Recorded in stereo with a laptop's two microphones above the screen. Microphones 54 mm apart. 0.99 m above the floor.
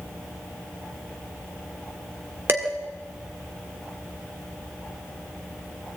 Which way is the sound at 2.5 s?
45° right (ahead or behind).